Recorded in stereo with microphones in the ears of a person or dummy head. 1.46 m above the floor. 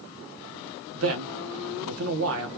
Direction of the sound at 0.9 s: 80° right.